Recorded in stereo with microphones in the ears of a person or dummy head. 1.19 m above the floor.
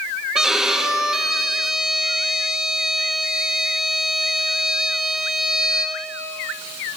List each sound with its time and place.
0.3 s a violin: centre (ahead or behind), 1.4 m